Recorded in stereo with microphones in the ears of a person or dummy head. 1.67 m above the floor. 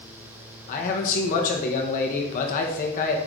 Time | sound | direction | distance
0.7 | a man speaking | 45° left (ahead or behind) | 1.3 m